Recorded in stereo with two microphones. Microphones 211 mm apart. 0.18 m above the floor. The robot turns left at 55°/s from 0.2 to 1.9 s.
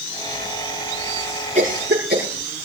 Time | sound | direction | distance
1.6 | a cough | 35° right (ahead or behind) | 7 m